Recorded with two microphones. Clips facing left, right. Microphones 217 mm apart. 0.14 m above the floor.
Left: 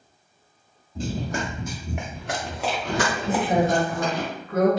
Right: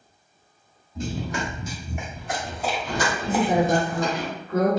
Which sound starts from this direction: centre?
A woman speaking, at 3.2 s.